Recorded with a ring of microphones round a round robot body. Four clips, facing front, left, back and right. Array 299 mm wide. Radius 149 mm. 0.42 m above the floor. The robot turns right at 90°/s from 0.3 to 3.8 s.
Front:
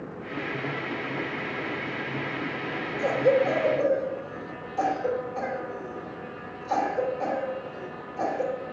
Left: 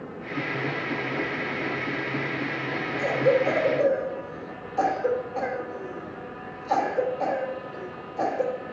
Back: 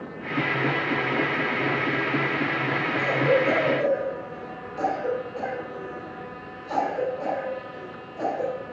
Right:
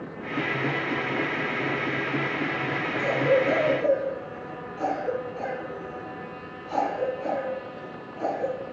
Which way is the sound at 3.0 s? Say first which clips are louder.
Left 1 dB, front 1 dB; 10° left.